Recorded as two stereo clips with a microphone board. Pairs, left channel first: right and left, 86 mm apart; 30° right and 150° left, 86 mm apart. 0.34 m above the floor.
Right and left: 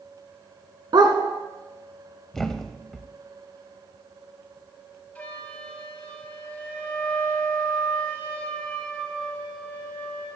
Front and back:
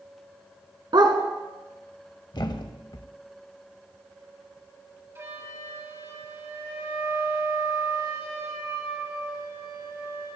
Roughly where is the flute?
Behind.